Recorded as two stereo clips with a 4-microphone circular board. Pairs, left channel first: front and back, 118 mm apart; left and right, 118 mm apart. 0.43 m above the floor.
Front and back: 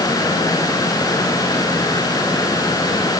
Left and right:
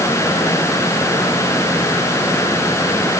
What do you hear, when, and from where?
Only background noise.